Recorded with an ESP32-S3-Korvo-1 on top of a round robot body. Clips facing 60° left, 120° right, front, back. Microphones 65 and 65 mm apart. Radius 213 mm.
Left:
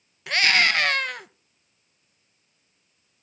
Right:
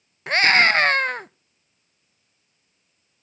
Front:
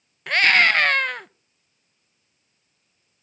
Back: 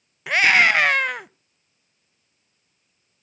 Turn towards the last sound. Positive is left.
turn(degrees=-105)